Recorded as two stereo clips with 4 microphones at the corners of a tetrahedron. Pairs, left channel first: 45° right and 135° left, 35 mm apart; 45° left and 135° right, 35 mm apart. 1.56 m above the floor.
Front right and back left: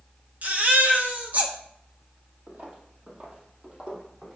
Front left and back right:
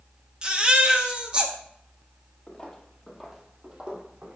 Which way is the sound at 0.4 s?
170° left.